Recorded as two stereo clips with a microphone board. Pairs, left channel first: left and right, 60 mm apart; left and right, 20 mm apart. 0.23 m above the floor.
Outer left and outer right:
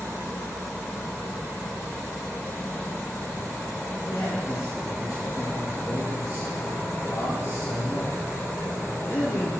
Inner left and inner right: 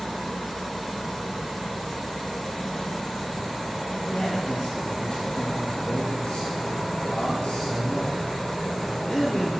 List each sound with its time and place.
4.1 s a man speaking: 55° left (ahead or behind), 4.5 m